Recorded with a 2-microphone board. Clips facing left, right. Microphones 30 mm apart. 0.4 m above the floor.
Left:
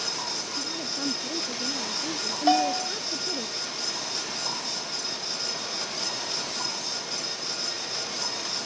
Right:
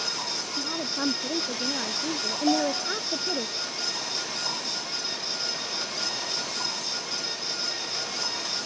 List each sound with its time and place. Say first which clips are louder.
0.6 s a woman speaking: right 2 dB; 45° right (ahead or behind)
2.5 s a bell: left 3 dB; 45° left (ahead or behind)